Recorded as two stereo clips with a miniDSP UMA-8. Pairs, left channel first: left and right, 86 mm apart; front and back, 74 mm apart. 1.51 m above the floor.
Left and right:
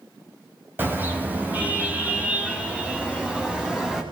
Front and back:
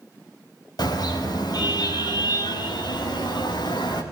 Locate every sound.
0.8 s a car horn: 25° right, 5 m; by 4.0 s 10° right, 6.5 m